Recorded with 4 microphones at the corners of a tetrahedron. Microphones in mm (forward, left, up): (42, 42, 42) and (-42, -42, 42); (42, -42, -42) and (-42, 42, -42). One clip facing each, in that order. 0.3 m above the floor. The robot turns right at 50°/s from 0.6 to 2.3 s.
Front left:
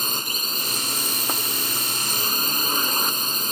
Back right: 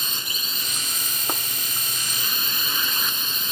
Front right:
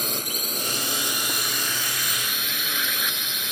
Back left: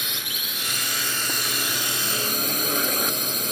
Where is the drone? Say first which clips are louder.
Front left 5 dB, front right 5 dB; 5° left; by 3.5 s 90° left.